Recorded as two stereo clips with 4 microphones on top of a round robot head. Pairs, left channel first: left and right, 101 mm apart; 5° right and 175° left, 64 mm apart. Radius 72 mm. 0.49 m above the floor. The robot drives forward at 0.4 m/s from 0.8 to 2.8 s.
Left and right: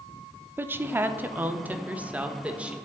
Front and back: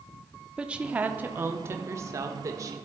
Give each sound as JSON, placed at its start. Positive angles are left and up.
{"t": 0.6, "sound": "a woman speaking", "azimuth_deg": -135, "distance_m": 0.7}